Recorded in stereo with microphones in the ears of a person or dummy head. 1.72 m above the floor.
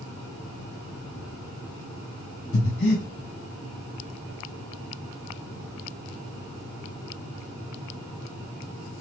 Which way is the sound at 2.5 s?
55° left (ahead or behind).